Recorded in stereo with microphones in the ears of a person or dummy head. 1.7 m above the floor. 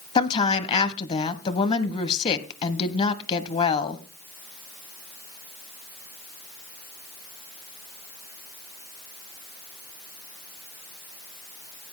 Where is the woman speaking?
35° left (ahead or behind), 1.2 m.